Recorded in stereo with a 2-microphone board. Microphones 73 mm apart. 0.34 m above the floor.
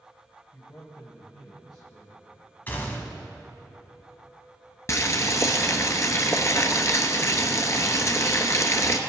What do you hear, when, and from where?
0.5 s a man speaking: 45° left (ahead or behind), 1.6 m; by 2.3 s 70° left (ahead or behind), 3 m
2.7 s a gunshot: 25° left (ahead or behind), 1.3 m
4.9 s boiling: 45° left (ahead or behind), 1.0 m